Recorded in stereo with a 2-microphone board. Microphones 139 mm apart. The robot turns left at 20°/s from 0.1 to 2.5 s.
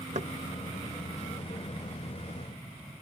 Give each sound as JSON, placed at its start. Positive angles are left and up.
{"t": 0.1, "sound": "knocking", "side_deg": -60}